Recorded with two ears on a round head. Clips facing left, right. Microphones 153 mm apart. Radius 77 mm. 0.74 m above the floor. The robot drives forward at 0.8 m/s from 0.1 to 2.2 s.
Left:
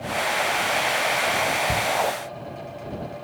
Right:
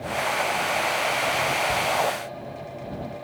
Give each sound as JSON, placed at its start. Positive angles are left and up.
{"t": 1.7, "sound": "a shout", "side_deg": 45}